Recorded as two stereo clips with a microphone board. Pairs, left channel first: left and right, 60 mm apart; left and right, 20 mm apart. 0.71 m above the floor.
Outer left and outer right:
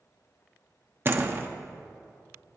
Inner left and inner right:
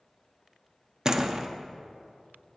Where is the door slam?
35° right (ahead or behind), 0.8 m.